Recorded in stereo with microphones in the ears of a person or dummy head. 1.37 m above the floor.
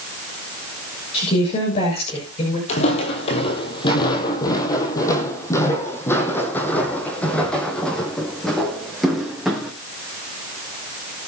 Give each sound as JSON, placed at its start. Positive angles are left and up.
{"t": 1.1, "sound": "a woman speaking", "side_deg": 35, "distance_m": 6.5}
{"t": 2.7, "sound": "footsteps", "side_deg": 50, "distance_m": 2.5}